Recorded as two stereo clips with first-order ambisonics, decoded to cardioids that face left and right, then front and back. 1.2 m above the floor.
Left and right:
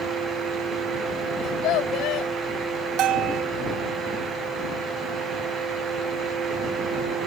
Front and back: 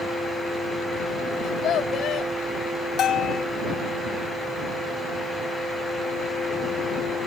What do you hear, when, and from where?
1.4 s a child speaking: 50° left
3.0 s a bell: 55° right